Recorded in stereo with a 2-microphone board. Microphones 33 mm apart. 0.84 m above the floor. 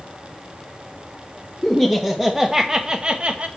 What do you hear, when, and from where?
1.6 s laughter: 5° left (ahead or behind), 1.4 m; by 3.5 s 40° right (ahead or behind), 1.2 m